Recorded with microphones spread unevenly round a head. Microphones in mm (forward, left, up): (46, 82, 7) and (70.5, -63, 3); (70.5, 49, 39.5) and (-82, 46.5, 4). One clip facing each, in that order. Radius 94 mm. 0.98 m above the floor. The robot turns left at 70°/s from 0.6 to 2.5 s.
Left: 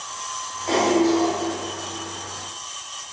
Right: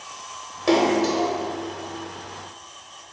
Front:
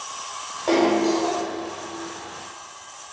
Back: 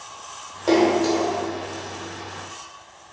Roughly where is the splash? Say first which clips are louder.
Left 1 dB, back 1 dB; right.